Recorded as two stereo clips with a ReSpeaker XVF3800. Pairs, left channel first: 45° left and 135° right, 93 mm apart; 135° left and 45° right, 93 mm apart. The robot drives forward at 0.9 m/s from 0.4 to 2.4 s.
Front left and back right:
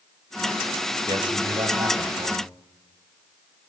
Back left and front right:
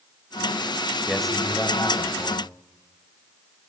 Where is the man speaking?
135° right, 1.5 m; by 2.5 s 155° right, 2.5 m.